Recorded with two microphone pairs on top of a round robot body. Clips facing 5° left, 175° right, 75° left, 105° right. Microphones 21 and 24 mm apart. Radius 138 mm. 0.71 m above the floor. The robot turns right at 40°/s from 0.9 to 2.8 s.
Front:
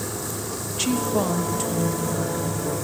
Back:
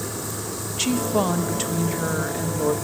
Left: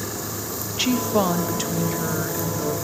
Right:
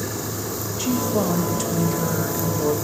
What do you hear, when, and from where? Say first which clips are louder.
0.7 s a woman speaking: back 1 dB, left 2 dB; 100° left, 0.6 m; by 2.7 s 175° left, 0.6 m